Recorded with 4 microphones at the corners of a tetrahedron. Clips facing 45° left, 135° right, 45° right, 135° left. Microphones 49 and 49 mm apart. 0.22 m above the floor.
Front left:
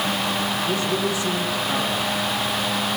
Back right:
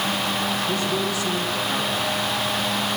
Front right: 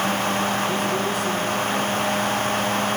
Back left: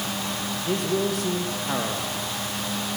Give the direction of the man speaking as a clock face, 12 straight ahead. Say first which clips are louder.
Front left 1 dB, front right 2 dB; 8 o'clock.